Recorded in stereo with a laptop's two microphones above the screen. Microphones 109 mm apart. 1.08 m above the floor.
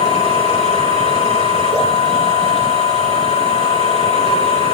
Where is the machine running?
75° left (ahead or behind), 2.5 m.